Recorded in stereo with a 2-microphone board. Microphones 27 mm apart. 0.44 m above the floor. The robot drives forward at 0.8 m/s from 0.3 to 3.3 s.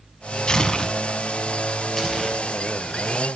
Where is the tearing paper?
35° left (ahead or behind), 0.5 m; by 2.4 s 10° left (ahead or behind), 2.0 m.